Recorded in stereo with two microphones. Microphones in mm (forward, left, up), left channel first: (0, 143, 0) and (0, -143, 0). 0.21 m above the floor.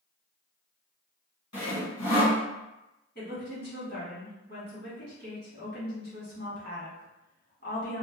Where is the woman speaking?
40° left (ahead or behind), 1.5 m.